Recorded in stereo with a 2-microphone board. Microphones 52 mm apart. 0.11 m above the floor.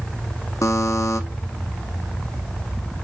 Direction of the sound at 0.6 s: 75° left (ahead or behind).